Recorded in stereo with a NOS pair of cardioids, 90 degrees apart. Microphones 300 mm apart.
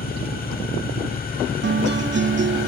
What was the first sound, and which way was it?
An engine running, 30° left.